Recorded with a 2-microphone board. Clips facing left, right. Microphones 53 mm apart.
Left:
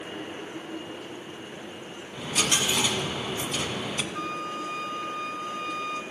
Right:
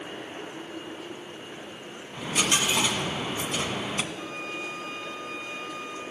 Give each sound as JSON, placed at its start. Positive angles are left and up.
{"t": 2.1, "sound": "a dropped coin", "side_deg": -15, "distance_m": 1.3}
{"t": 4.1, "sound": "a flute", "side_deg": 60, "distance_m": 0.9}